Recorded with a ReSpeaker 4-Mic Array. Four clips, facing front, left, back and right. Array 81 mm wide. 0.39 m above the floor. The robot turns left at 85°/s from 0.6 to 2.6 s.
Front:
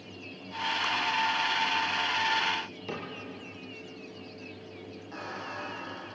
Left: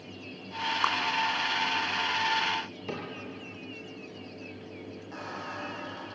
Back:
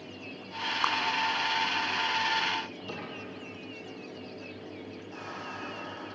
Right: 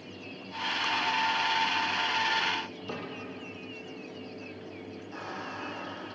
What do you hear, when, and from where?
0.8 s a clap: 135° left, 3 m; by 0.9 s 125° left, 3 m
2.9 s a cupboard door: 60° left, 6 m
5.1 s a squeak: 55° left, 8.5 m